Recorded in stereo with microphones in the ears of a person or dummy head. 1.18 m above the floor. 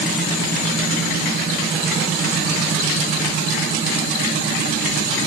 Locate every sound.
Only background noise.